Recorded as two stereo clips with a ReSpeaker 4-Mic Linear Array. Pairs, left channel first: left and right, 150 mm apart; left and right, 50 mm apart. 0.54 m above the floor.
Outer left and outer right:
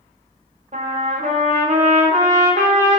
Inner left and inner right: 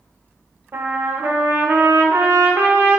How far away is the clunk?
I don't hear a clunk.